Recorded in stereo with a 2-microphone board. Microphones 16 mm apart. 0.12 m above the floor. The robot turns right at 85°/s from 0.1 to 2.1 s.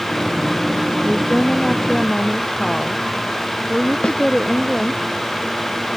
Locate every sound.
1.1 s a woman speaking: 65° left; by 5.0 s 155° left
4.0 s a snare drum: 80° left